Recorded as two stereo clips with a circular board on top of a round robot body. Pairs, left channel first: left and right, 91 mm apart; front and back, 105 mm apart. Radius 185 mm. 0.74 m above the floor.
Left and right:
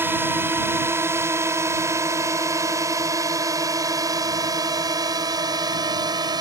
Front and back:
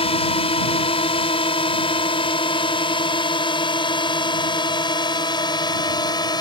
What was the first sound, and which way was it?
A drone, 25° right.